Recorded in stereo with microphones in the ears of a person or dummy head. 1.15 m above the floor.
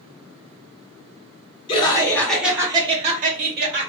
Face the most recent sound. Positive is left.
turn(degrees=-55)  # may be behind; listen again after turning